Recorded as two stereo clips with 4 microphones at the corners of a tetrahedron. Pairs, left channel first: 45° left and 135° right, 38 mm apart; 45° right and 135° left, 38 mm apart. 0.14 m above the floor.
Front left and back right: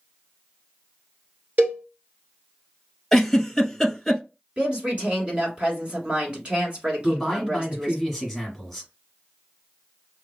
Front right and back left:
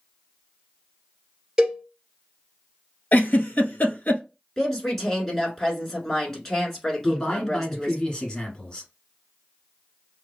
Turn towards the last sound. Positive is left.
turn(degrees=-30)